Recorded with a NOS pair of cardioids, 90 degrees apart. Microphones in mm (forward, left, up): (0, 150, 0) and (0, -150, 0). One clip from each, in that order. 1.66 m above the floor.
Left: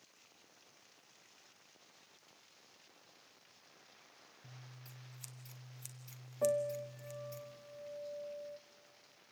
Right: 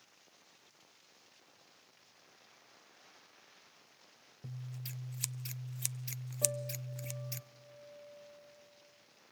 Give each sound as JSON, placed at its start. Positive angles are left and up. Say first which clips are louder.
{"t": 4.4, "sound": "scissors", "louder": "right 10 dB", "azimuth_deg": -70, "distance_m": 0.7}
{"t": 6.4, "sound": "a piano", "louder": "left 5 dB", "azimuth_deg": 20, "distance_m": 0.7}